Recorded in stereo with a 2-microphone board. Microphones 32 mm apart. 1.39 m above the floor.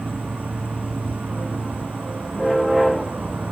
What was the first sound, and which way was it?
An insect, 70° right (ahead or behind).